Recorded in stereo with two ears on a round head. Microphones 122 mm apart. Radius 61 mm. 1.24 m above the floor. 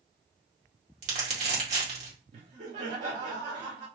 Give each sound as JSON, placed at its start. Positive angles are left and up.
{"t": 1.0, "sound": "crumpling", "side_deg": -55, "distance_m": 2.0}
{"t": 2.3, "sound": "laughter", "side_deg": -60, "distance_m": 2.0}